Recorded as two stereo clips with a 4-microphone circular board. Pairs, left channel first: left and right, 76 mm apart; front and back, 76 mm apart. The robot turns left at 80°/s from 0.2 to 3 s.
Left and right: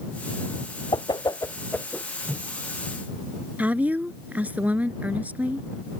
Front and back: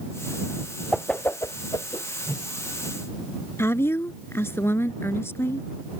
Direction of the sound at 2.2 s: 55° right.